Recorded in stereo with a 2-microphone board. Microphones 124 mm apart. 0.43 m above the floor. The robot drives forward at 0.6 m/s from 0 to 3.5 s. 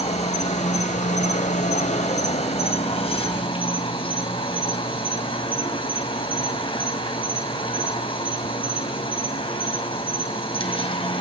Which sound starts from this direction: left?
An insect, at 0.0 s.